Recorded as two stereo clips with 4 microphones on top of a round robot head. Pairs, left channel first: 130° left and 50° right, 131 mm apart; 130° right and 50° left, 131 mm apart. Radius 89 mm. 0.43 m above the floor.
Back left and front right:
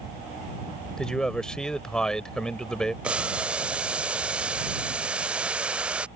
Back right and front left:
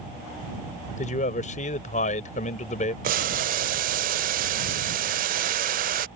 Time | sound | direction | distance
1.0 | a man speaking | 145° right | ?
3.0 | boiling | 35° left | ?